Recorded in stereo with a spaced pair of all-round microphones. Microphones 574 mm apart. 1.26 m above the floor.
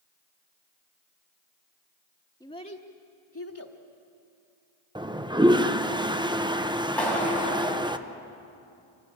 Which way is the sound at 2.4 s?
5° left (ahead or behind).